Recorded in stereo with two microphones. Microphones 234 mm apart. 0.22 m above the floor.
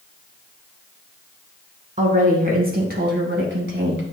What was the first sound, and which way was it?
A woman speaking, 30° right (ahead or behind).